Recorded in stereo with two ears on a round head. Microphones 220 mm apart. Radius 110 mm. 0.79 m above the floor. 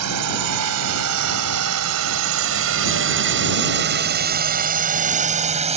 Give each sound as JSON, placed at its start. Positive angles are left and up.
{"t": 0.0, "sound": "a drone", "side_deg": -80}